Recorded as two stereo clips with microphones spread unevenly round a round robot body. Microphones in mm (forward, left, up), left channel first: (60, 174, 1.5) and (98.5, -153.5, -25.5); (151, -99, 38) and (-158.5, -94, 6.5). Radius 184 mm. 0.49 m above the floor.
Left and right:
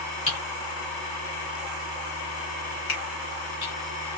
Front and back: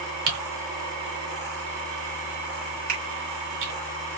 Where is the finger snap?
135° left, 1.4 m.